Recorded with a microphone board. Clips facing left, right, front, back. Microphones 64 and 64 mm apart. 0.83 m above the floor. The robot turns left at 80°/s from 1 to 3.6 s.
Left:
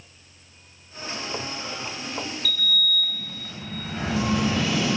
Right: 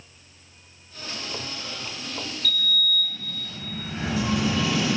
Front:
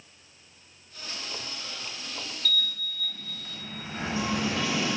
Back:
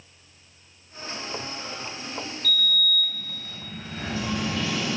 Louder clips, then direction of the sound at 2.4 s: Right 1 dB, back 6 dB; 160° left.